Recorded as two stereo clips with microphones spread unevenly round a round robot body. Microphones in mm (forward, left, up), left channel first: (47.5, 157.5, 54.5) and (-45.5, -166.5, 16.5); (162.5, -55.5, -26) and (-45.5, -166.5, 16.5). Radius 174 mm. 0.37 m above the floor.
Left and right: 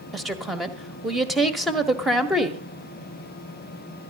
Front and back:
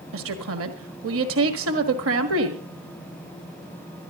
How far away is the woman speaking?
About 1.6 m.